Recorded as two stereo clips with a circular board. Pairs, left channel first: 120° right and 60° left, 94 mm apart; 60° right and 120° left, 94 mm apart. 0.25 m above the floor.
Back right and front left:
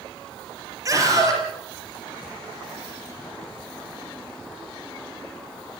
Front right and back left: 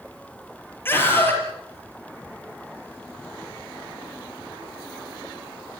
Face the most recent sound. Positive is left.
turn(degrees=5)